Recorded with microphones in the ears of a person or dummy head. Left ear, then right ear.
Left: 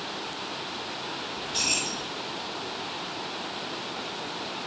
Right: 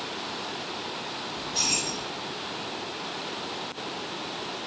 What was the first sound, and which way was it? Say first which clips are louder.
Keys jangling: even; 70° left (ahead or behind).